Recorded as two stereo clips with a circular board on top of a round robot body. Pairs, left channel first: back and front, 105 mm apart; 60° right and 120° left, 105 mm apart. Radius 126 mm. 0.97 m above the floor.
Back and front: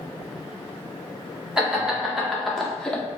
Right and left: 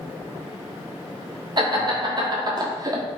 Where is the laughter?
85° left, 1.4 m; by 3.0 s 110° left, 0.8 m.